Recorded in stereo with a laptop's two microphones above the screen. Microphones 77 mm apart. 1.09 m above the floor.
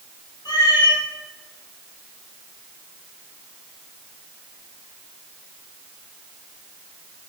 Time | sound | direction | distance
0.5 | a cat meowing | 65° left (ahead or behind) | 2.5 m